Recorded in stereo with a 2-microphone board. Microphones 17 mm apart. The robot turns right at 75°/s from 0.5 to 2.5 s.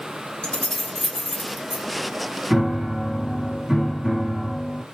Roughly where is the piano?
Centre.